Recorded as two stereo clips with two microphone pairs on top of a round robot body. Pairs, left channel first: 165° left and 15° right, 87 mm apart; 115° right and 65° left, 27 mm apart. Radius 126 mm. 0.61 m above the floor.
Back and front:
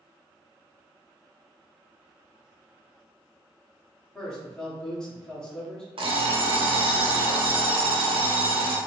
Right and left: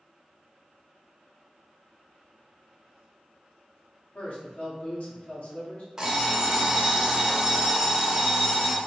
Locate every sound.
4.2 s a man speaking: 115° right, 1.6 m
6.0 s an alarm clock: 10° right, 1.0 m